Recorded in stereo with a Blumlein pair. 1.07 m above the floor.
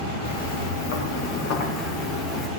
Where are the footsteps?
65° left, 5.5 m; by 2.5 s 30° left, 4 m.